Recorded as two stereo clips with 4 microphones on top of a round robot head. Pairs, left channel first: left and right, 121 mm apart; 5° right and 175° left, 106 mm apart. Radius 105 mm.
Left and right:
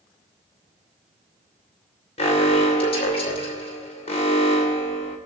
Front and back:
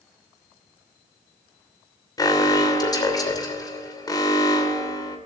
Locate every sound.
2.2 s an alarm: 50° left, 2.5 m